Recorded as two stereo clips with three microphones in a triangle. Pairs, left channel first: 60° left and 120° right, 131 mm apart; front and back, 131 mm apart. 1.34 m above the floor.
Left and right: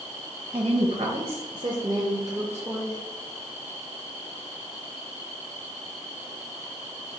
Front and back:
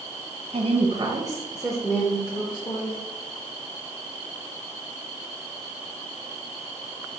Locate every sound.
0.5 s a woman speaking: 160° right, 0.7 m; by 2.9 s 40° right, 0.9 m